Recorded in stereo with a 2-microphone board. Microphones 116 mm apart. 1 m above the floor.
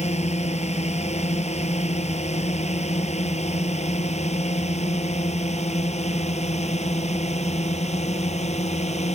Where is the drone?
90° left; by 9.2 s 85° left.